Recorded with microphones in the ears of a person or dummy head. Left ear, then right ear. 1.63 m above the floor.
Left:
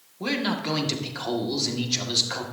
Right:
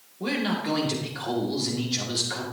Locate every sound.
0.2 s a man speaking: 25° left (ahead or behind), 1.8 m